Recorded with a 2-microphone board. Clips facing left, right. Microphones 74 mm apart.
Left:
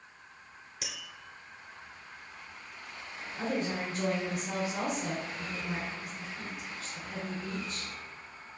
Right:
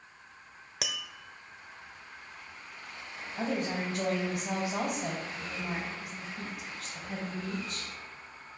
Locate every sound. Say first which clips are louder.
0.8 s tapping: right 6 dB; 80° right, 0.8 m
3.4 s a woman speaking: right 1 dB; 70° right (ahead or behind), 4 m